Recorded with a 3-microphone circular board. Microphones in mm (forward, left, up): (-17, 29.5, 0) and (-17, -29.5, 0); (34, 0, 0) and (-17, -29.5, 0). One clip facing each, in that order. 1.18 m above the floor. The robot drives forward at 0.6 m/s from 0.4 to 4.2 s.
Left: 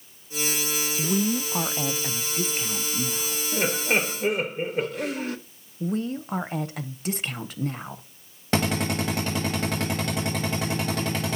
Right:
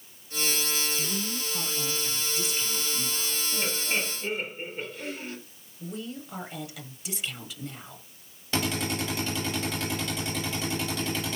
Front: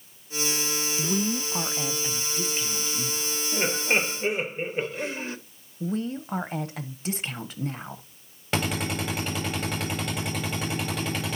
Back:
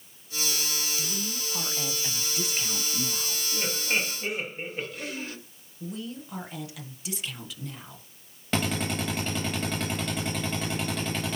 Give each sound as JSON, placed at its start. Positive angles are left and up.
{"t": 1.0, "sound": "a woman speaking", "azimuth_deg": 60, "distance_m": 0.6}
{"t": 3.5, "sound": "laughter", "azimuth_deg": 75, "distance_m": 1.2}
{"t": 5.8, "sound": "a woman speaking", "azimuth_deg": 65, "distance_m": 0.8}
{"t": 8.5, "sound": "a drill", "azimuth_deg": 115, "distance_m": 6.5}